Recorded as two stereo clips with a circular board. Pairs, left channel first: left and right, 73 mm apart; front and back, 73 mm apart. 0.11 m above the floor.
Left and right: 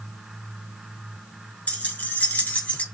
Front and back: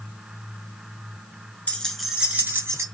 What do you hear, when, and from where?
1.7 s keys jangling: 45° left, 0.8 m; by 2.8 s 155° left, 1.1 m